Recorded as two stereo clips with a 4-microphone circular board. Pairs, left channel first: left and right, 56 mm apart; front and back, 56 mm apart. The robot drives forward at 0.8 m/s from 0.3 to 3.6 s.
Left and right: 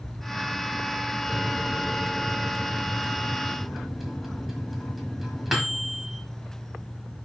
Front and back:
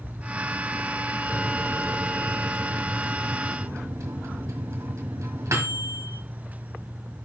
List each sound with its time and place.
1.3 s a microwave: 10° right, 0.8 m; by 6.2 s 175° right, 1.6 m